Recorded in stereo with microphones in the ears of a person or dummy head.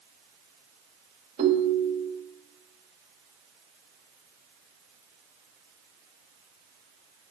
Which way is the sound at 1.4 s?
35° right (ahead or behind).